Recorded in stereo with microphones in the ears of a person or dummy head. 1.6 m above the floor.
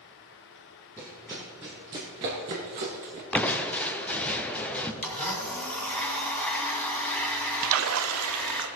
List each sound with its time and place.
1.0 s running footsteps: 5° left (ahead or behind), 1.6 m; by 3.2 s 35° right (ahead or behind), 1.9 m
3.3 s crushing: 10° left (ahead or behind), 0.8 m
5.0 s a blender: 5° left (ahead or behind), 2 m
7.6 s a splash: 80° right, 0.8 m